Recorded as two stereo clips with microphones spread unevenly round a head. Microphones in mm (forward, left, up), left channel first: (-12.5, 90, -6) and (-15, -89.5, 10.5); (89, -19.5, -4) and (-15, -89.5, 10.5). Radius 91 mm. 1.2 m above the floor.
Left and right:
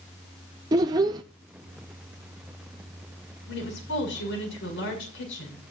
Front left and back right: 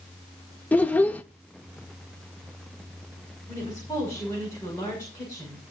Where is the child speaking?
45° right, 0.5 m.